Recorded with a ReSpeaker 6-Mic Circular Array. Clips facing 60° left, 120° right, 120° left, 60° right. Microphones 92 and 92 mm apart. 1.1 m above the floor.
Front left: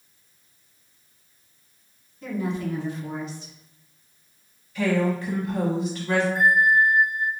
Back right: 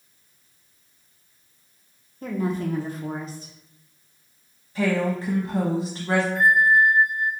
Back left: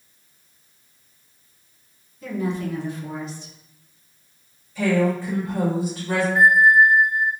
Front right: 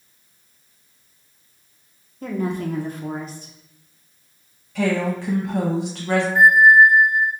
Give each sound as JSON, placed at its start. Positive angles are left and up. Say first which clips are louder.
{"t": 2.2, "sound": "a woman speaking", "louder": "back right 2 dB, front right 1 dB", "azimuth_deg": -85, "distance_m": 0.6}
{"t": 4.8, "sound": "a woman speaking", "louder": "even, back left 1 dB", "azimuth_deg": -65, "distance_m": 0.9}
{"t": 6.3, "sound": "a bell", "louder": "back right 2 dB, front right 3 dB", "azimuth_deg": 20, "distance_m": 1.1}